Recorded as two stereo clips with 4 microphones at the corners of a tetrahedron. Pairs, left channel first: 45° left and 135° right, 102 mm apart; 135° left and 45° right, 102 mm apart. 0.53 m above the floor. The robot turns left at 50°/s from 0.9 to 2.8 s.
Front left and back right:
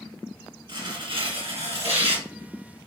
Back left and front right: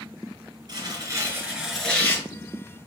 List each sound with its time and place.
0.7 s tearing paper: 95° right, 3 m; by 2.2 s 160° right, 3 m